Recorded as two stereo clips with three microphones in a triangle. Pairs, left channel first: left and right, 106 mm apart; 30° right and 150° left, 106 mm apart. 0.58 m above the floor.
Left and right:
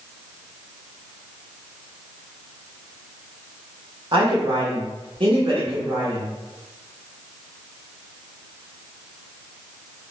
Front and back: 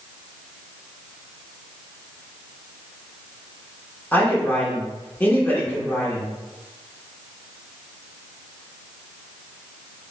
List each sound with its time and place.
4.1 s a man speaking: 100° right, 1.4 m